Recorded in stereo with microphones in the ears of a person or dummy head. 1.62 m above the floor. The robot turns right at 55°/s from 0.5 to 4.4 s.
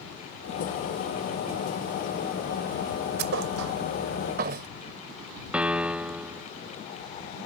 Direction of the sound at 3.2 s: 60° right (ahead or behind).